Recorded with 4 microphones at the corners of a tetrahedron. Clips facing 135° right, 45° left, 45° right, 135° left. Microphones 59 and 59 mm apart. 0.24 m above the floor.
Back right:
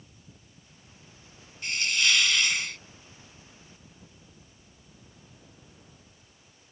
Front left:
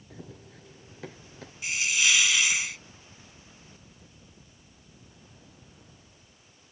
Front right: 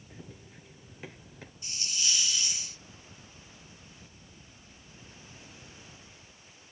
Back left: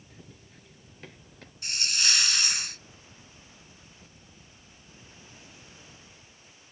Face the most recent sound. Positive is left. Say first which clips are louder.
# even, back left 7 dB
turn(degrees=130)